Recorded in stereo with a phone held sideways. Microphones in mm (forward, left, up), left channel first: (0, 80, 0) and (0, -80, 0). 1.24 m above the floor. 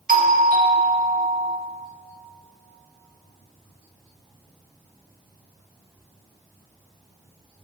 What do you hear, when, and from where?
0.1 s a doorbell: 65° right (ahead or behind), 1.5 m